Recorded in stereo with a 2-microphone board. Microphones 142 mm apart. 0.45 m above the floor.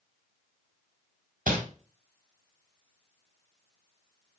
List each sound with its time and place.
1.5 s crumpling: 70° right (ahead or behind), 0.9 m